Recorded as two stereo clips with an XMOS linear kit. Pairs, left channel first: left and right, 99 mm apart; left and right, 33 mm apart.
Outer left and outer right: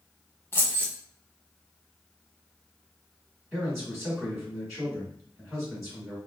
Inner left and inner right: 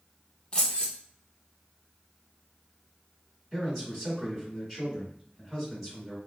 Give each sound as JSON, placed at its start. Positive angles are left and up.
{"t": 0.5, "sound": "keys jangling", "side_deg": 25, "distance_m": 0.8}
{"t": 3.5, "sound": "a man speaking", "side_deg": 0, "distance_m": 1.3}